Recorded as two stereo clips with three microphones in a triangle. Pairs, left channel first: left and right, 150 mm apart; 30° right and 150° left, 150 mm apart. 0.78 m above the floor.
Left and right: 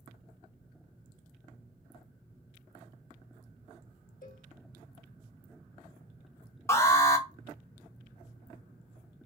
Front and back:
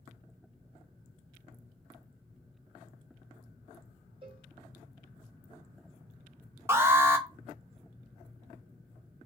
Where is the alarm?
115° left, 0.7 m.